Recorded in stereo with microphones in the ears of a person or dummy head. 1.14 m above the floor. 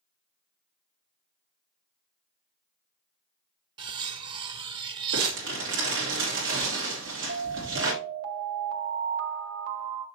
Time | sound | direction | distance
3.8 | cutlery clinking | 30° right (ahead or behind) | 0.7 m
5.1 | crumpling | 60° right (ahead or behind) | 2.5 m
7.3 | an alarm | 75° right (ahead or behind) | 1.8 m